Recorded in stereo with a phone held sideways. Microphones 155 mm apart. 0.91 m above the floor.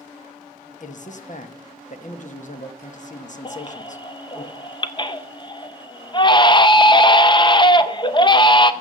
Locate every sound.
0.8 s a man speaking: 55° left (ahead or behind), 1.2 m
3.5 s a baby crying: 30° left (ahead or behind), 0.7 m